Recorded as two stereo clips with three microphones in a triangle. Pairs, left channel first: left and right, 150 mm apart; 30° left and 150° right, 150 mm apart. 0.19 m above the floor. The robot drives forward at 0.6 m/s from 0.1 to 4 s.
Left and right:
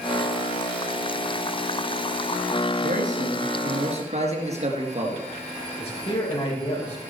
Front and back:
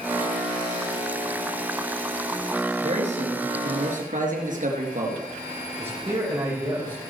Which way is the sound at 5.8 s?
140° left.